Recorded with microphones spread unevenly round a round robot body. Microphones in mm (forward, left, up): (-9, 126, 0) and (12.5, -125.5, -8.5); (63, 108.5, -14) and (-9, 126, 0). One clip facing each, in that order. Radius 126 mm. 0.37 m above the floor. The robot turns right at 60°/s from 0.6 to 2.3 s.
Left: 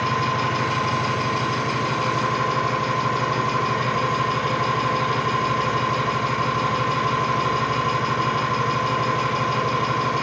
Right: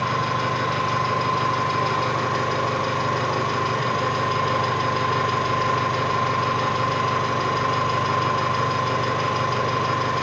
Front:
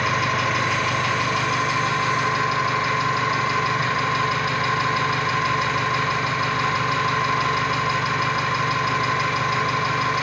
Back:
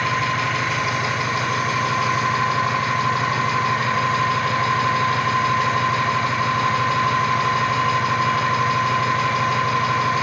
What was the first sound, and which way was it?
An engine running, 70° left.